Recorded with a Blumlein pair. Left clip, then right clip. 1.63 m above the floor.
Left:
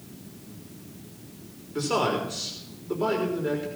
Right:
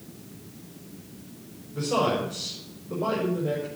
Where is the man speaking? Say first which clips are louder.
Even; 40° left, 4 m.